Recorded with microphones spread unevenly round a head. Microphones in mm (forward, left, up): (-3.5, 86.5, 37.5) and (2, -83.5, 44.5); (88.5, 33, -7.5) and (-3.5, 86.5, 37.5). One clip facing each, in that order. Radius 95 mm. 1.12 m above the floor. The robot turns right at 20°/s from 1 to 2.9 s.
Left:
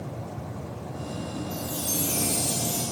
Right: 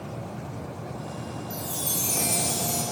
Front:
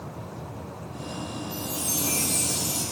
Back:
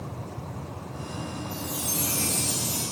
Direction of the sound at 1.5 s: 120° right.